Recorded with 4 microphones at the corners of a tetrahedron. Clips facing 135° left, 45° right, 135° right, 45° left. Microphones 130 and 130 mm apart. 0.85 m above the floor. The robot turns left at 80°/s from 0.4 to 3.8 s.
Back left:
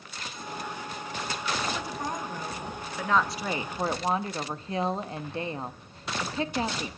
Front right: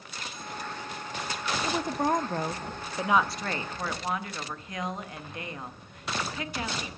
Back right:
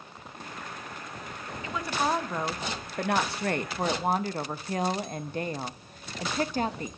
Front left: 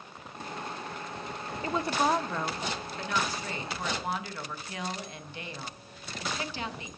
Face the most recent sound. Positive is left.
turn(degrees=-175)